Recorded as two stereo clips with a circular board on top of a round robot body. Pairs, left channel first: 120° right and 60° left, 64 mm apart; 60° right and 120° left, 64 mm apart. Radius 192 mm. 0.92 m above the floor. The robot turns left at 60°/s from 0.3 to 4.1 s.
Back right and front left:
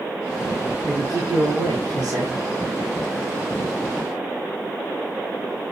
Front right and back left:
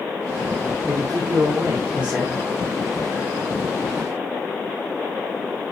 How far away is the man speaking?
About 3 m.